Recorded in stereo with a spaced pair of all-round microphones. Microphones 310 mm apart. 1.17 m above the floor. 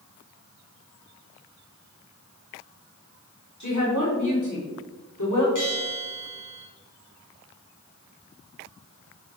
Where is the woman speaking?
65° left (ahead or behind), 3.5 m; by 5.5 s 80° left, 3 m.